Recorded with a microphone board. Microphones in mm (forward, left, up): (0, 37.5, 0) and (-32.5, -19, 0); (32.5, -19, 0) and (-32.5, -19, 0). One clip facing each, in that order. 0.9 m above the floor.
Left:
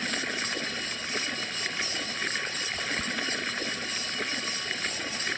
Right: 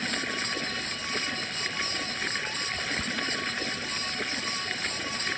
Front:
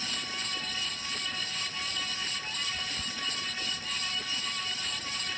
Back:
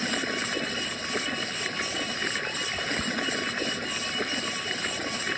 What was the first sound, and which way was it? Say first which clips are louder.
Running water: even, back 8 dB; 145° left.